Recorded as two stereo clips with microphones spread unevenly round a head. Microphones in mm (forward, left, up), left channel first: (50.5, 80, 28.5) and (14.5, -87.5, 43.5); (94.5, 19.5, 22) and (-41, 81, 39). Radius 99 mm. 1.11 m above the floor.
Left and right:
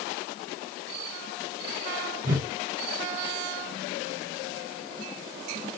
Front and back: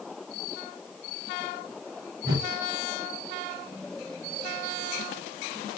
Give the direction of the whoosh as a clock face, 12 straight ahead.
5 o'clock.